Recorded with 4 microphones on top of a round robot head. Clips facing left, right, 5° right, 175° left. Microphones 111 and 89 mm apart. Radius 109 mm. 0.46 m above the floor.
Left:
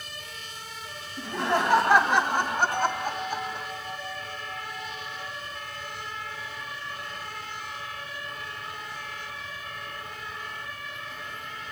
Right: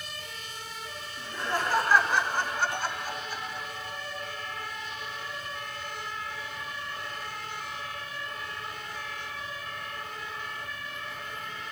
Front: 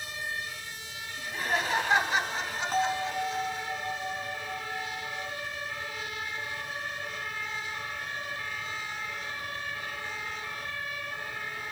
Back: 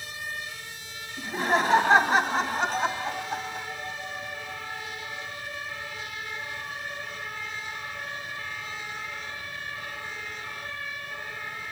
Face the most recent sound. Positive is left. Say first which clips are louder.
# left 6 dB, even
turn(degrees=40)